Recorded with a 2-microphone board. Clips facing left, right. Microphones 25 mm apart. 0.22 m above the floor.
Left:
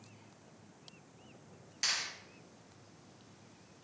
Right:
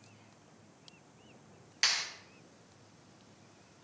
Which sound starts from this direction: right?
A clap, at 1.8 s.